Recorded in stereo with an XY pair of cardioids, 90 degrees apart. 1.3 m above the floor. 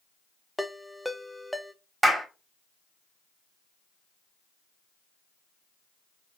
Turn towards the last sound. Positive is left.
turn(degrees=-25)